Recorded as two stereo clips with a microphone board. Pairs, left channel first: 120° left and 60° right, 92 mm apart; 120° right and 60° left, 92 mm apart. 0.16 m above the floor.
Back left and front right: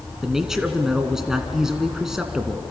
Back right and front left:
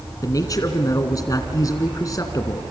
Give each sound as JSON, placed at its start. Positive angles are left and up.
{"t": 0.2, "sound": "a man speaking", "azimuth_deg": -140, "distance_m": 1.9}